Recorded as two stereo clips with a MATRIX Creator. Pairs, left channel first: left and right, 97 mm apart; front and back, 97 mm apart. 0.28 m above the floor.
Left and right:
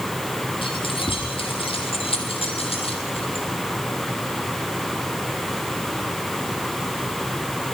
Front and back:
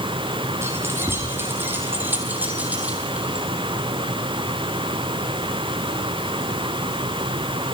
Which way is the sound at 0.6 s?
120° left.